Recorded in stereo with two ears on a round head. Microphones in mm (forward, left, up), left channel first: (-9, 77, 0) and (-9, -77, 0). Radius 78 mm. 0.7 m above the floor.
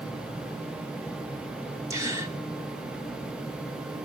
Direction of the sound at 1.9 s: 15° right (ahead or behind).